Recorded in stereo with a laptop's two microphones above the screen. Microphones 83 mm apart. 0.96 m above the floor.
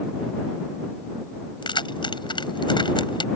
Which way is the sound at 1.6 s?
75° left (ahead or behind).